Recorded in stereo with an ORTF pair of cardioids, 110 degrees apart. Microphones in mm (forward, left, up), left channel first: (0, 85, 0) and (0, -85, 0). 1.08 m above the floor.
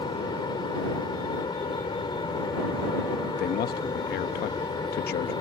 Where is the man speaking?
65° left.